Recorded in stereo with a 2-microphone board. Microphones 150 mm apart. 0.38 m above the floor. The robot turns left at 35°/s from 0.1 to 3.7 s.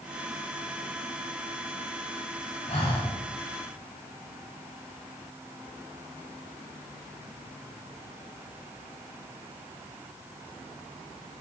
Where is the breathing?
45° left (ahead or behind), 2.0 m; by 3.1 s 35° left (ahead or behind), 2.0 m.